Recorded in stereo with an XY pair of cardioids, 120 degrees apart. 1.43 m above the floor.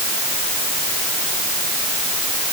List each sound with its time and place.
Only background noise.